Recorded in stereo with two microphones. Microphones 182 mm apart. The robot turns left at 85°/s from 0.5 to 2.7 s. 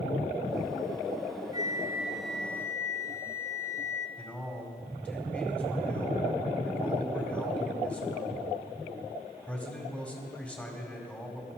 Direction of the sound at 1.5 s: 25° right (ahead or behind).